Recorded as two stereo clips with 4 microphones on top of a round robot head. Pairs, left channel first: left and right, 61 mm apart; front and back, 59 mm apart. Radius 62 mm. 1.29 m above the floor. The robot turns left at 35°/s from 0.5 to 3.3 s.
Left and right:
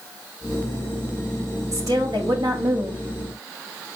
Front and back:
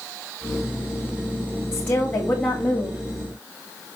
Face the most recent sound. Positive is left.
turn(degrees=-120)